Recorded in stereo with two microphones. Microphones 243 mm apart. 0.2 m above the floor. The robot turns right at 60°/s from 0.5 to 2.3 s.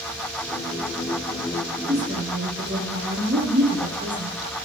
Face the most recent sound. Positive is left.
turn(degrees=-45)  # may be behind; listen again after turning